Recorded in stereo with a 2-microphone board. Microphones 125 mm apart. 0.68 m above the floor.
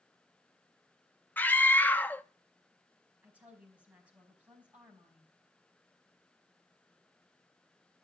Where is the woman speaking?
10° right (ahead or behind), 4.5 m.